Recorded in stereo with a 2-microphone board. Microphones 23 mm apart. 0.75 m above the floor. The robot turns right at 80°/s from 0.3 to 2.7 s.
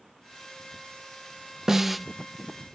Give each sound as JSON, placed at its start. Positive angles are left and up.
{"t": 1.7, "sound": "a snare drum", "azimuth_deg": -20, "distance_m": 0.7}